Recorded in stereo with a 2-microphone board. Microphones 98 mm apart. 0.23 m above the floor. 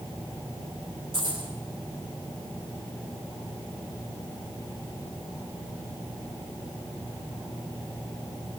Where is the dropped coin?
60° right (ahead or behind), 9.5 m.